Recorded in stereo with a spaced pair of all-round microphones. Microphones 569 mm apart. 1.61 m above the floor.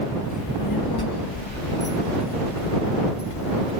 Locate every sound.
0.3 s a child speaking: 30° left (ahead or behind); by 3.7 s 65° left (ahead or behind)